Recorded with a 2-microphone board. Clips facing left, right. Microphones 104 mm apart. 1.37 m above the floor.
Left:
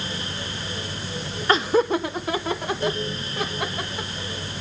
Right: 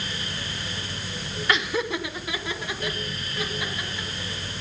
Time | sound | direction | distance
1.5 | laughter | 35° left (ahead or behind) | 0.7 m